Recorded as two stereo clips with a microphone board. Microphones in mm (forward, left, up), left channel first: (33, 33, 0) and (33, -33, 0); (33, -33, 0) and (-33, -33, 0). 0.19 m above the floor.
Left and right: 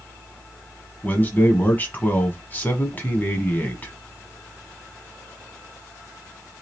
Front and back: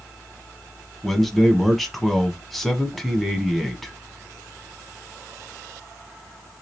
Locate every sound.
1.0 s a man speaking: 85° left, 1.1 m